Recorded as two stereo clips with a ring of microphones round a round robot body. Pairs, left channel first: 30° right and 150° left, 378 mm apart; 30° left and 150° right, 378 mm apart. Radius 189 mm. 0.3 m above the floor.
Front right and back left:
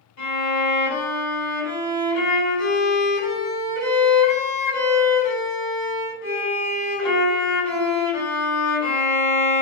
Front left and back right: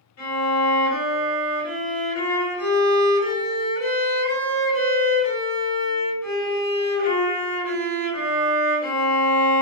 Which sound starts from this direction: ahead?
A violin, at 0.2 s.